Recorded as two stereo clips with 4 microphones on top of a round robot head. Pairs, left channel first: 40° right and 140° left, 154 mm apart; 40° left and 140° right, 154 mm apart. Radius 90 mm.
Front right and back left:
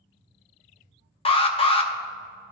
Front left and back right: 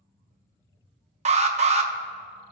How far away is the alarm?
About 0.7 m.